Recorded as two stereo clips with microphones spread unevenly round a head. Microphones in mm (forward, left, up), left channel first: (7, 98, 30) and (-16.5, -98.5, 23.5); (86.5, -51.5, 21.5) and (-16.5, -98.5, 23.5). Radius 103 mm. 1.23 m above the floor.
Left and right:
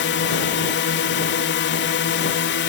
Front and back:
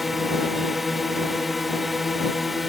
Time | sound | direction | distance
0.0 | a drone | 115° left | ?